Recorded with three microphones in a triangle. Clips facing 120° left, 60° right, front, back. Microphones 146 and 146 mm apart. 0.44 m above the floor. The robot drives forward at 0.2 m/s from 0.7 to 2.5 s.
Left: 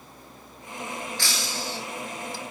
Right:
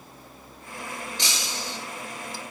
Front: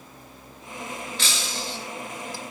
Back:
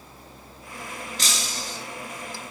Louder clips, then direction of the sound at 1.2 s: Left 1 dB, front 1 dB; 130° right.